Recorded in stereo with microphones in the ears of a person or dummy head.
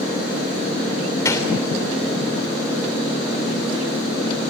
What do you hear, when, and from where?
1.2 s a gunshot: 25° left (ahead or behind), 3 m